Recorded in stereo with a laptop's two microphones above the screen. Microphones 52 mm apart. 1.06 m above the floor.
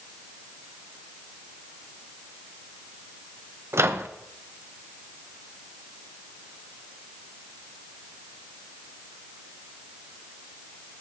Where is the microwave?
55° right (ahead or behind), 0.7 m.